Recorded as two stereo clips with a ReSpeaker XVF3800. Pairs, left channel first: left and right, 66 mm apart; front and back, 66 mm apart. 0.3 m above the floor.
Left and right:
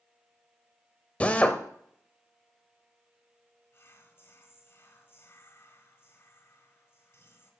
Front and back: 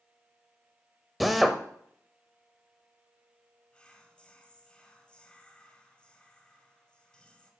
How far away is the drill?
About 0.6 m.